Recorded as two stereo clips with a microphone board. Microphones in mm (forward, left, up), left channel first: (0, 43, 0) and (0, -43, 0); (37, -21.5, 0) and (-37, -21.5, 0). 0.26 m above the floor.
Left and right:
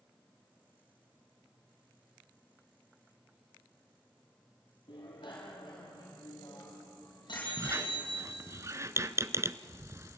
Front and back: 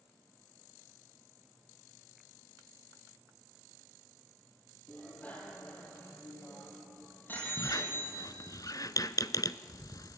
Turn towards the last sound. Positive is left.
turn(degrees=-35)